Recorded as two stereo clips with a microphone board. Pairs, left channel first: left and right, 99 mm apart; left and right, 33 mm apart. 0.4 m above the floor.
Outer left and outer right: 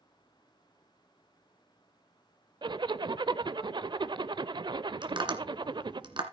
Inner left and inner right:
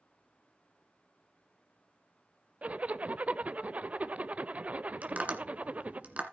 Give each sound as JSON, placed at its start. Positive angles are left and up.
{"t": 2.6, "sound": "a zipper", "side_deg": -50, "distance_m": 0.5}
{"t": 5.0, "sound": "tapping", "side_deg": -50, "distance_m": 1.9}